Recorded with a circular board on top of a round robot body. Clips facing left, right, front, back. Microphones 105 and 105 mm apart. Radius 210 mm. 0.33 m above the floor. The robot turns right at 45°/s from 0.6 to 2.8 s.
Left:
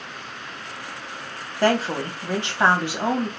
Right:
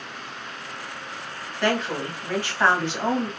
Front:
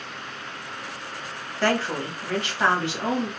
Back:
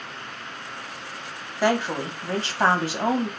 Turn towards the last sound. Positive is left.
turn(degrees=160)